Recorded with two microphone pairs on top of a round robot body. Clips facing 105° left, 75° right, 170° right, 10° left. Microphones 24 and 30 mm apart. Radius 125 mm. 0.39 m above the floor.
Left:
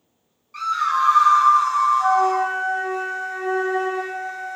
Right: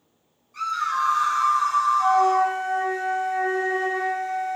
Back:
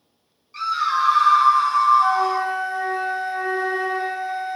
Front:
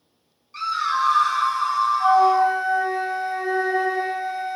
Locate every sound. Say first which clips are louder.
0.5 s a scream: left 4 dB, back 2 dB; 85° left, 1.2 m; by 2.5 s 155° right, 1.2 m
2.0 s a flute: left 1 dB, front 3 dB; 170° left, 1.4 m